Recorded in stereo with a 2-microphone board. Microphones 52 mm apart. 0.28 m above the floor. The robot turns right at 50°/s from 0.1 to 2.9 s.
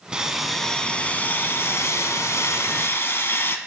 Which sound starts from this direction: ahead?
Sawing, at 0.1 s.